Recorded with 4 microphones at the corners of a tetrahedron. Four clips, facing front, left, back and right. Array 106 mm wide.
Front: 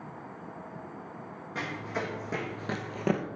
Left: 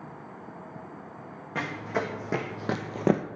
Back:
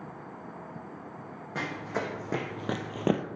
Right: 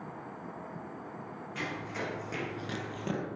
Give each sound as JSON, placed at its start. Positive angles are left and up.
{"t": 1.6, "sound": "running footsteps", "azimuth_deg": 120, "distance_m": 1.8}